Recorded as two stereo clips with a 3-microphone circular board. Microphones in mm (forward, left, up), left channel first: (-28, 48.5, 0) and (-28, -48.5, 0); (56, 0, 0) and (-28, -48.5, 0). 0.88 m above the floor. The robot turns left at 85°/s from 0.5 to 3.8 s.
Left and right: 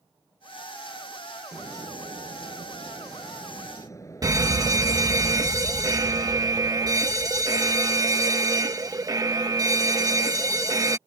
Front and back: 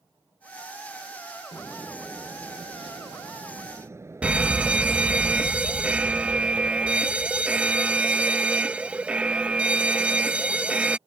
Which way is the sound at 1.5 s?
20° right.